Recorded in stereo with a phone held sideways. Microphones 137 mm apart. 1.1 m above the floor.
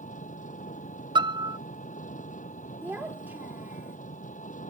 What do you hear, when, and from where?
0.0 s an engine running: 70° left (ahead or behind)
1.1 s a piano: 35° right (ahead or behind)
2.8 s a child speaking: 15° right (ahead or behind)